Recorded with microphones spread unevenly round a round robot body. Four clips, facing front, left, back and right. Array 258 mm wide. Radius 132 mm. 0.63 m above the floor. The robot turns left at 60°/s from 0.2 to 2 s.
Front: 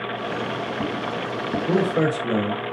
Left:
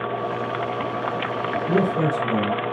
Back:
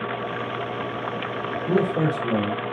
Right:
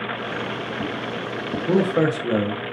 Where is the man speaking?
40° right, 0.6 m; by 2.6 s 60° right, 0.6 m.